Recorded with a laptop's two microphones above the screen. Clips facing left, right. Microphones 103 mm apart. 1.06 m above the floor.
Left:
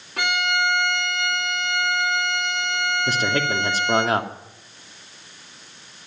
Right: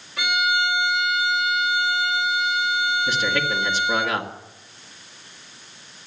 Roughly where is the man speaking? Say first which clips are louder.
Left 1 dB; left.